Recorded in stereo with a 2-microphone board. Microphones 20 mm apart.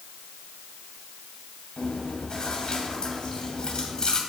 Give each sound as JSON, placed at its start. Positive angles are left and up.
{"t": 1.8, "sound": "chewing", "side_deg": 50, "distance_m": 2.5}